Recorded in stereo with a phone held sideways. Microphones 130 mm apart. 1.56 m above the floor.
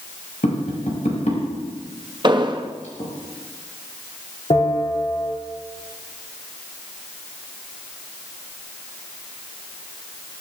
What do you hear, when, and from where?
0.4 s tapping: 70° left (ahead or behind), 5.5 m
2.2 s an explosion: 35° right (ahead or behind), 1.2 m
4.5 s a bell: 45° left (ahead or behind), 5.5 m